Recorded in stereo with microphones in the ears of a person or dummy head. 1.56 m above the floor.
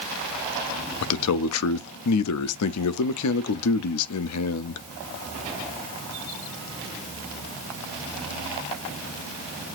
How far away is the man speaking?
About 0.5 m.